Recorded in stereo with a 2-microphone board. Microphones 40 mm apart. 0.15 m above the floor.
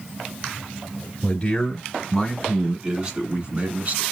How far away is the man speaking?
About 1.2 m.